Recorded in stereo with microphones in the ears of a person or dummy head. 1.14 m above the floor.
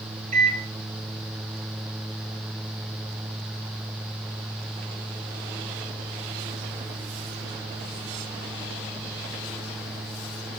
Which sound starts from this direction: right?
A microwave, at 0.3 s.